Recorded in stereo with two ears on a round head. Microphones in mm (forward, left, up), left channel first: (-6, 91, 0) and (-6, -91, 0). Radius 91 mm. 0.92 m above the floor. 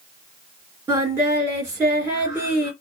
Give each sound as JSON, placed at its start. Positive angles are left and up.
{"t": 0.9, "sound": "singing", "side_deg": -10, "distance_m": 2.5}